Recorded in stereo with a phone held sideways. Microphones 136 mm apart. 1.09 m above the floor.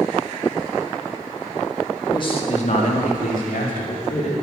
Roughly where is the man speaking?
Left.